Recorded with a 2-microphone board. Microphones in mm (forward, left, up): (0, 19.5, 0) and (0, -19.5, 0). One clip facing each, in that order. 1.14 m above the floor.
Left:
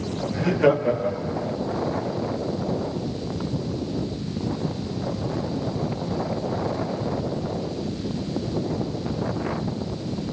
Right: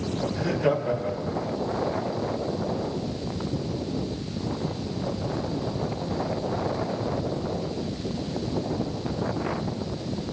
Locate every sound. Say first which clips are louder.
0.3 s laughter: left 6 dB; 70° left (ahead or behind), 2.5 m; by 1.6 s 65° left (ahead or behind), 1.6 m